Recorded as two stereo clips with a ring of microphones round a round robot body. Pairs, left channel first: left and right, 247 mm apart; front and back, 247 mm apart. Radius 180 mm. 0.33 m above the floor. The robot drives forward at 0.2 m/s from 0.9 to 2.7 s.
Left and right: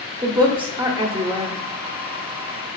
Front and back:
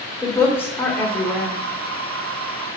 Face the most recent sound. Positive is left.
turn(degrees=-130)